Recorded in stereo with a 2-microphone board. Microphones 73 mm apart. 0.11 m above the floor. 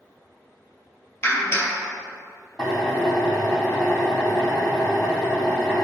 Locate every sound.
1.2 s a clap: 40° left (ahead or behind), 2 m
2.6 s a drill: 15° left (ahead or behind), 2.5 m